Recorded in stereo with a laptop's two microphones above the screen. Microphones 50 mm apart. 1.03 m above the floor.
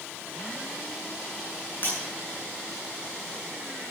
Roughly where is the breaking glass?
Left.